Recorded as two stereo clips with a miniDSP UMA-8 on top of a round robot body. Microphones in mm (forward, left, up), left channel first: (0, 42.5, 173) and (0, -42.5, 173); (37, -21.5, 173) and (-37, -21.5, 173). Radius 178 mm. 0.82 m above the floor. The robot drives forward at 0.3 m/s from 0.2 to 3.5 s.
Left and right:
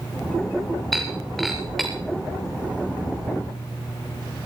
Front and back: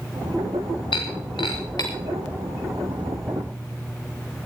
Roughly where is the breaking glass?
Ahead.